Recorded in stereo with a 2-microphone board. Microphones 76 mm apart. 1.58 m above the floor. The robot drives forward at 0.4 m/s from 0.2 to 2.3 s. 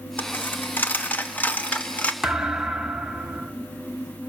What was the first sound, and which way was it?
A dropped coin, 20° left (ahead or behind).